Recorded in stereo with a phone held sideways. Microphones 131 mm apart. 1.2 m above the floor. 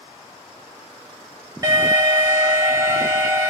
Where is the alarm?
25° right (ahead or behind), 1.1 m.